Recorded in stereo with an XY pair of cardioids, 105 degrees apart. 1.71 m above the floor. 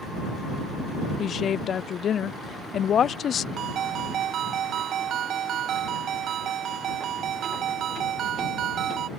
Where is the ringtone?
70° right.